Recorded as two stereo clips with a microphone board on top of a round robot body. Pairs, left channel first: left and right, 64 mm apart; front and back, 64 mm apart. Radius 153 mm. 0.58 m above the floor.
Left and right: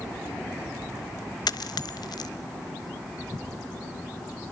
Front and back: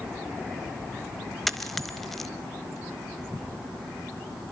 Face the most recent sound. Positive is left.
turn(degrees=85)